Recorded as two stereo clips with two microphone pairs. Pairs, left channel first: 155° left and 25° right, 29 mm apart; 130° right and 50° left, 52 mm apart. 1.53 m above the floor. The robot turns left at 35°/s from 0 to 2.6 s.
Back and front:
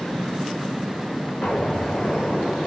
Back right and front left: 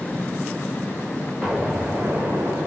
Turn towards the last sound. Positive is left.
turn(degrees=90)